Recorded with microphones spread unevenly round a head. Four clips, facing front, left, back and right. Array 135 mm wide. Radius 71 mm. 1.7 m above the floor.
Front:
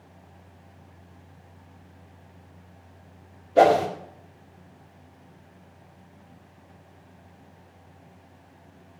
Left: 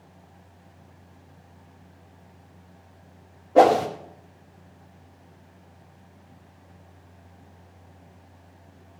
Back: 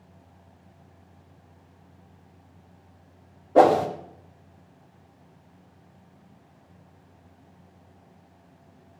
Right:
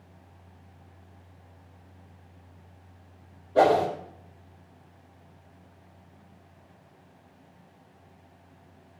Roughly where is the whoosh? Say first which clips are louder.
Left 4 dB, even; behind left.